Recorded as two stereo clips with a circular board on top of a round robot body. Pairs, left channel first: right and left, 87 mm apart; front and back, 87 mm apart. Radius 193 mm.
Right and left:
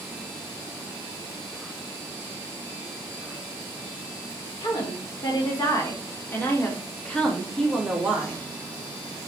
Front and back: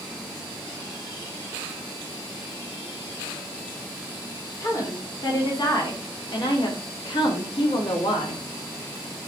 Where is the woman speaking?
50° right, 3.5 m; by 8.4 s 10° left, 2.5 m.